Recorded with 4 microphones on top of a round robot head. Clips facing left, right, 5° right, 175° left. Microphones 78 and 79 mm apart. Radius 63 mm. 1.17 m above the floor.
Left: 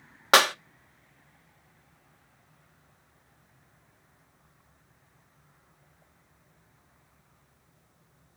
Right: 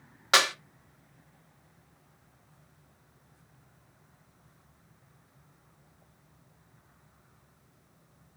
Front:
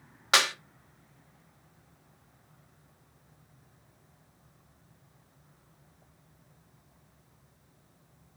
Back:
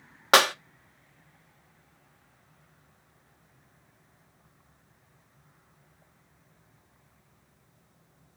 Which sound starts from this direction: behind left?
A clap, at 0.3 s.